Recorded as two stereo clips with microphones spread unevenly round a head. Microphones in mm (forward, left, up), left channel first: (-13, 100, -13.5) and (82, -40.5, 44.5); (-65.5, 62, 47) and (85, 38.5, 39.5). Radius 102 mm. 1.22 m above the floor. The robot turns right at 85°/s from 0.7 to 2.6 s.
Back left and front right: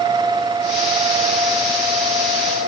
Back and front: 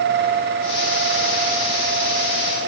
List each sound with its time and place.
Only background noise.